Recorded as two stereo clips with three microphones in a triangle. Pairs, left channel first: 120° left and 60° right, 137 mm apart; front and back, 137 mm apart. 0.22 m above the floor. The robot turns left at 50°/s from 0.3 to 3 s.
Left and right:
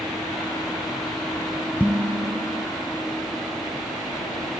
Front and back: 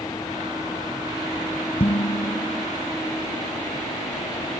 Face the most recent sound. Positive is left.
turn(degrees=-45)